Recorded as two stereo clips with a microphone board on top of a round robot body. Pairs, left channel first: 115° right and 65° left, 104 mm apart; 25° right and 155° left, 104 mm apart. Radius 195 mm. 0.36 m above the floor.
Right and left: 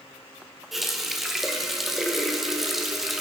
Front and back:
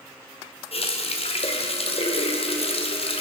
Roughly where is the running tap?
Ahead.